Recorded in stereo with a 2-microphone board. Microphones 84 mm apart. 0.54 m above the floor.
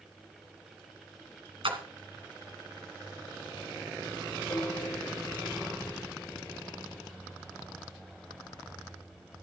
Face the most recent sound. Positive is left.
turn(degrees=40)  # may be behind; listen again after turning